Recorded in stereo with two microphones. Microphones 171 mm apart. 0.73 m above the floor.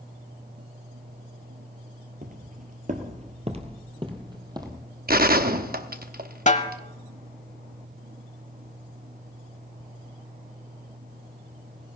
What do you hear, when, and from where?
2.2 s footsteps: 55° right (ahead or behind), 1.1 m; by 4.9 s 20° right (ahead or behind), 1.7 m
5.1 s a gunshot: 60° right (ahead or behind), 0.7 m
6.5 s a snare drum: 45° left (ahead or behind), 0.8 m